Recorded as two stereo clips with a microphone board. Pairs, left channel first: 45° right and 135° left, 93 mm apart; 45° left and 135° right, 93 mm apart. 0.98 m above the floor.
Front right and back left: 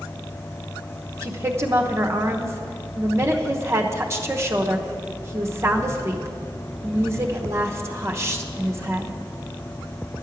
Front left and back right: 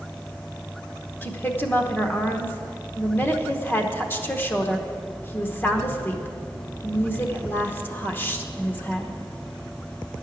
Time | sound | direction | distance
1.2 | a woman speaking | 95° left | 0.9 m